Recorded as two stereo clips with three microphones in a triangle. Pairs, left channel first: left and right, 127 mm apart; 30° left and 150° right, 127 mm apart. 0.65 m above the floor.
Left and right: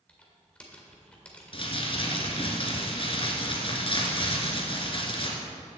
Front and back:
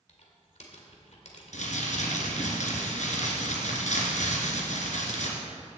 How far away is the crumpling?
About 2 m.